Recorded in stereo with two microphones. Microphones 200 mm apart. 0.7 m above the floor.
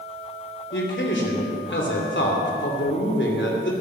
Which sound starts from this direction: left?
A man speaking, at 0.7 s.